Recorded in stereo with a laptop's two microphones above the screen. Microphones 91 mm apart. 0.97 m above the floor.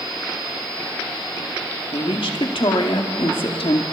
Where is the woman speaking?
75° left (ahead or behind), 2.5 m.